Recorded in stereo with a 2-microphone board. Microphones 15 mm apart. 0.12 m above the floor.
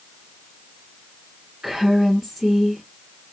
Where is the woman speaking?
20° right (ahead or behind), 1.7 m.